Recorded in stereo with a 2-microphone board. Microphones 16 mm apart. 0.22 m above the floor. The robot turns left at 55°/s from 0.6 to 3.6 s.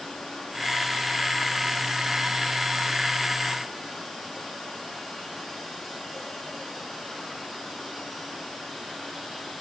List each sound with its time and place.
Only background noise.